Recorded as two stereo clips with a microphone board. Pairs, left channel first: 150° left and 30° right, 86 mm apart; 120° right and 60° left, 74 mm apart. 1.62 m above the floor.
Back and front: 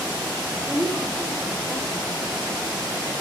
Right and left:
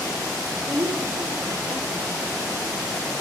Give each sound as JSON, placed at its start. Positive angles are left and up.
{"t": 0.7, "sound": "a woman speaking", "azimuth_deg": 60, "distance_m": 7.0}